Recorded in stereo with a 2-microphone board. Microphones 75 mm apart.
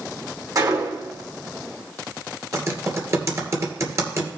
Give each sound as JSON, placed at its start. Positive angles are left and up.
{"t": 0.6, "sound": "a gunshot", "side_deg": -50, "distance_m": 2.5}
{"t": 2.5, "sound": "typing on a keyboard", "side_deg": -40, "distance_m": 2.5}